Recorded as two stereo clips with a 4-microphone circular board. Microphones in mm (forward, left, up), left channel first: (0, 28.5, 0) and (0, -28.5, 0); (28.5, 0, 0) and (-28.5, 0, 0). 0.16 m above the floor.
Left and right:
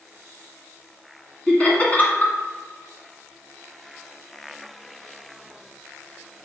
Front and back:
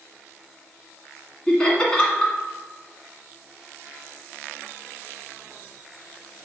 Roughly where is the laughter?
Ahead left.